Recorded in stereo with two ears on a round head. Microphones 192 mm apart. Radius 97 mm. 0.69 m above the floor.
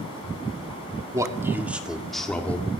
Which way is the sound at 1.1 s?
15° right (ahead or behind).